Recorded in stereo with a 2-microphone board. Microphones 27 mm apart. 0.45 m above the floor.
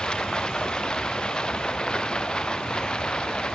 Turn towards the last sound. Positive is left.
turn(degrees=35)  # may be behind; listen again after turning